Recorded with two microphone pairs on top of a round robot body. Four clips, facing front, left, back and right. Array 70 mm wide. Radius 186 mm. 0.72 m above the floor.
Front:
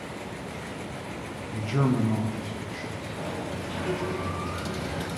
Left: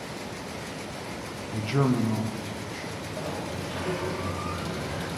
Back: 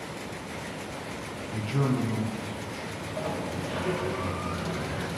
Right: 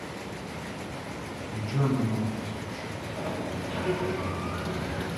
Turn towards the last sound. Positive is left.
turn(degrees=175)